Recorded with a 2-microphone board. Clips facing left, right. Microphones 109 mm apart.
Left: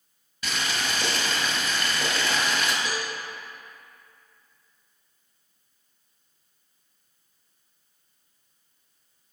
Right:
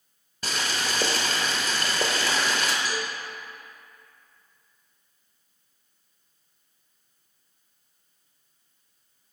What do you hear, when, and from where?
0.4 s boiling: 40° right (ahead or behind), 1.0 m
2.9 s a cowbell: 25° left (ahead or behind), 0.9 m